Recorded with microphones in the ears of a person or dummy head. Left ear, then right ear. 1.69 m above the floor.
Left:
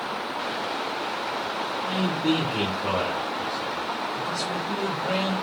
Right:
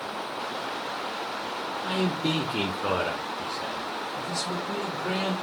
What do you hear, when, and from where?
1.8 s a man speaking: 40° right (ahead or behind), 0.6 m; by 5.3 s 45° right (ahead or behind), 2 m